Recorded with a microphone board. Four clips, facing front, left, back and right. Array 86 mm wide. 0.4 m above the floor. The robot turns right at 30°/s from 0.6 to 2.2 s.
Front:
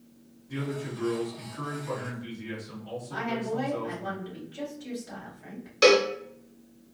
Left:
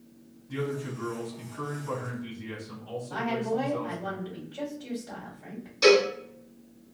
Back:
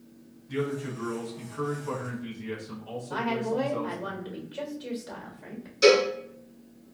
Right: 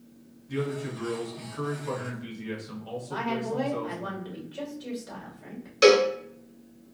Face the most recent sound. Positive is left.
turn(degrees=-50)